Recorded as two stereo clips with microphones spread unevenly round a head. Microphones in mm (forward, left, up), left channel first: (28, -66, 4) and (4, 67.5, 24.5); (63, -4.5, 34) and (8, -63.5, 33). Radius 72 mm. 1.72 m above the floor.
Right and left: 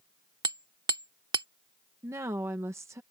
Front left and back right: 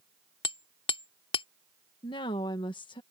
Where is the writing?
No writing in this recording.